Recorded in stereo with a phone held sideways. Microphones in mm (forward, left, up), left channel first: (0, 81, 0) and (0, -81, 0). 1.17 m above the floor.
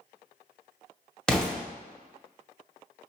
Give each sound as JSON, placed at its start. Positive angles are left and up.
{"t": 1.3, "sound": "an explosion", "side_deg": 5, "distance_m": 0.9}